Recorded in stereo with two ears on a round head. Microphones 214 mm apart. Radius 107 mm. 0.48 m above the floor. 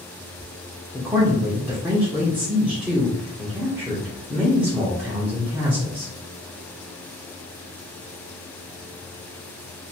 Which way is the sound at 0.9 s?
10° right (ahead or behind).